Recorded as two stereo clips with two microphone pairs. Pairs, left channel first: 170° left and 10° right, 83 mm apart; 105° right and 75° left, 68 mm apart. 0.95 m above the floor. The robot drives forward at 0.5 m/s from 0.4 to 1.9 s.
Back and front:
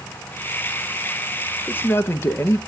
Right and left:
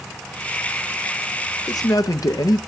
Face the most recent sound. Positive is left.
turn(degrees=-130)